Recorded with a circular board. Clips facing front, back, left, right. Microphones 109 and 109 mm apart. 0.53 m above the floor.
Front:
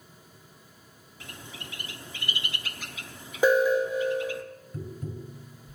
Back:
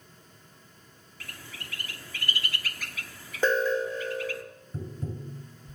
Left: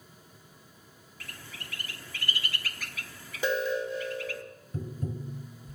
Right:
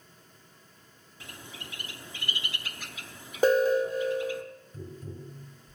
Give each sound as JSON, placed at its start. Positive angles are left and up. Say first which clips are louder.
{"t": 1.2, "sound": "a bird", "louder": "front 2 dB, right 2 dB", "azimuth_deg": -40, "distance_m": 0.9}
{"t": 3.4, "sound": "an alarm", "louder": "front 4 dB, right 7 dB", "azimuth_deg": -75, "distance_m": 1.7}
{"t": 4.7, "sound": "tapping", "louder": "back 1 dB, left 8 dB", "azimuth_deg": 120, "distance_m": 2.0}